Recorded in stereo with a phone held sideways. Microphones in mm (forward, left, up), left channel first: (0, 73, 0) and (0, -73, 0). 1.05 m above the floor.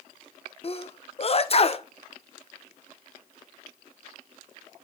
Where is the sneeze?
45° left (ahead or behind), 0.6 m.